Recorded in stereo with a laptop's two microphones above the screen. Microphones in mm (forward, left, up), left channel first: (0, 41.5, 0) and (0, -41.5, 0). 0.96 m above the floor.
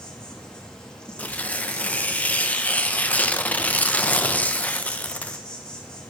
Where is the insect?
10° left (ahead or behind), 1.3 m.